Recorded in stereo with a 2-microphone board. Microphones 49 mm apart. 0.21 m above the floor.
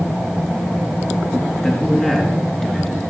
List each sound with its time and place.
1.6 s a man speaking: 15° left (ahead or behind), 3 m; by 3.0 s 10° left (ahead or behind), 3.5 m